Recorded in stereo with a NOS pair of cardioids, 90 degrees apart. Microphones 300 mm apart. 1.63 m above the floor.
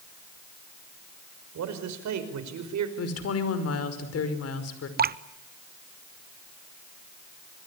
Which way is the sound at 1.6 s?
65° right.